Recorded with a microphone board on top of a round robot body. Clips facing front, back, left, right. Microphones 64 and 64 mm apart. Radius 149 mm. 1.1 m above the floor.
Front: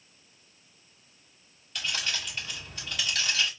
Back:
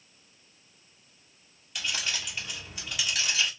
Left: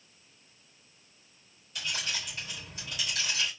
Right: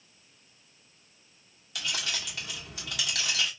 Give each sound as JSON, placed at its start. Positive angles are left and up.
{"t": 1.8, "sound": "keys jangling", "azimuth_deg": -100, "distance_m": 1.8}